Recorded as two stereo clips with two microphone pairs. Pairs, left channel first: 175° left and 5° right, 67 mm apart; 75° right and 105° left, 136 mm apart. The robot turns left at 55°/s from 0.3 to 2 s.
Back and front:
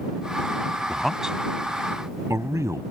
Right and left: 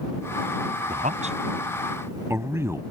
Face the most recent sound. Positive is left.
turn(degrees=35)